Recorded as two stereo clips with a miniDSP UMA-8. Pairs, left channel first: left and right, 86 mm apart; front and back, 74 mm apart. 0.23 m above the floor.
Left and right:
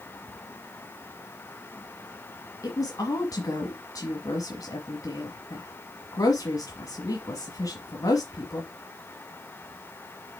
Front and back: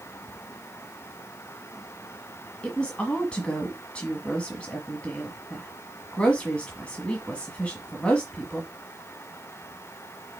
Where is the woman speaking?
70° left, 1.5 m.